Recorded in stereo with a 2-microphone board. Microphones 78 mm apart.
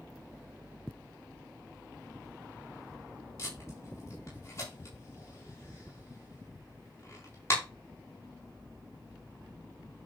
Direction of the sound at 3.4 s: 35° left (ahead or behind).